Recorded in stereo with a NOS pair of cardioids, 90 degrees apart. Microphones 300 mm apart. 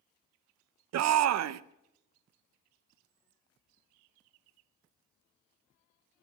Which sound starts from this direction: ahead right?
A shout, at 0.9 s.